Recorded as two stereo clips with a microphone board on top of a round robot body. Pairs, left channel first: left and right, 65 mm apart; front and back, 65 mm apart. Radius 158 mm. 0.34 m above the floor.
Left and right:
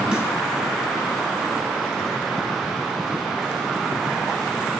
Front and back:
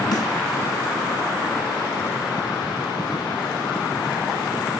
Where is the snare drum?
15° right, 5.5 m.